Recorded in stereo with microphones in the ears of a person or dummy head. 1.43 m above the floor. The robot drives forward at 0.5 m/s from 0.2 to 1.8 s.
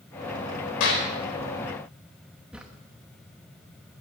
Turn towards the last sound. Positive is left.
turn(degrees=-5)  # may be behind; listen again after turning